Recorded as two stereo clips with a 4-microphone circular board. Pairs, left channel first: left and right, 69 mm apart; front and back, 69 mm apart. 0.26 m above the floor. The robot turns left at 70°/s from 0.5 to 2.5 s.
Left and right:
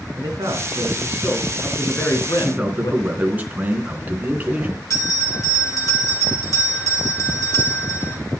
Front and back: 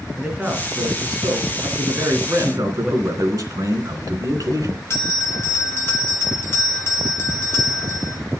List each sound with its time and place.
0.1 s a man speaking: 105° right, 4 m; by 3.0 s 115° left, 4 m
2.4 s a man speaking: 145° right, 3 m; by 4.8 s 155° right, 3 m
4.9 s a bell: 50° left, 1.9 m